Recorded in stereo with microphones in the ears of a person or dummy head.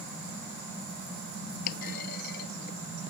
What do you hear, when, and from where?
1.7 s a clunk: 55° left (ahead or behind)